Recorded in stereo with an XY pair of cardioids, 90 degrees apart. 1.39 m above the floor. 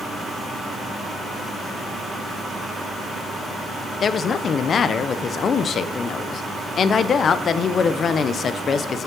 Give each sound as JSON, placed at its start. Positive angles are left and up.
{"t": 4.0, "sound": "a woman speaking", "azimuth_deg": 60, "distance_m": 0.6}